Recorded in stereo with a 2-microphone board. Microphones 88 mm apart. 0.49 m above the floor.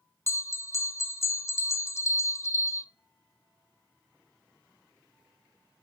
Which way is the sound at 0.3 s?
30° left (ahead or behind).